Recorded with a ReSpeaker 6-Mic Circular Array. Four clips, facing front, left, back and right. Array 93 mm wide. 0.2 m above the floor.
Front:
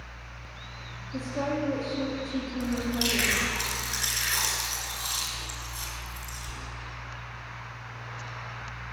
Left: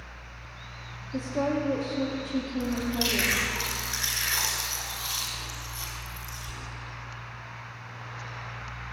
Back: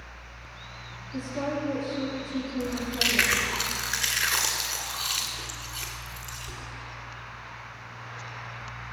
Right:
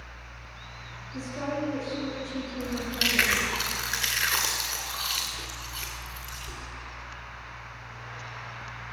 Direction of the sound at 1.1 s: 85° left.